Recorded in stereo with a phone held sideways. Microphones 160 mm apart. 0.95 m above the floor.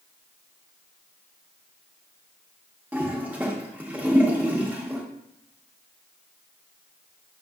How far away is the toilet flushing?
About 0.7 m.